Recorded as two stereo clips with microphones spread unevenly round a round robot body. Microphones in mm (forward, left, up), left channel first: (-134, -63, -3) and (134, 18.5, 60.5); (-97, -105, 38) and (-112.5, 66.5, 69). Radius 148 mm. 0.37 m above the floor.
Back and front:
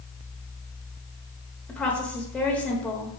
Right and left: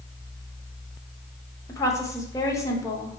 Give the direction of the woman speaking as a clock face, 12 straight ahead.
4 o'clock.